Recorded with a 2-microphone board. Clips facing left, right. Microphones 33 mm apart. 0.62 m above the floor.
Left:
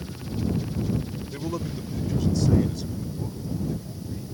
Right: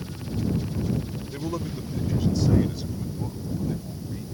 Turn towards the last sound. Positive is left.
turn(degrees=-25)  # may be behind; listen again after turning